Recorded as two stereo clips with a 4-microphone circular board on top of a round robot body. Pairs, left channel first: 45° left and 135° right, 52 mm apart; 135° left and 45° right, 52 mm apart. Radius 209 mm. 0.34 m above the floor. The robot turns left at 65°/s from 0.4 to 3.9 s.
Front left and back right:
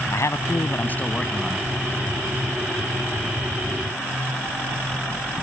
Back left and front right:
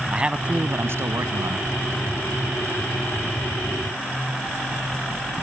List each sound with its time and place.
0.1 s a man speaking: 25° left; by 1.7 s 55° right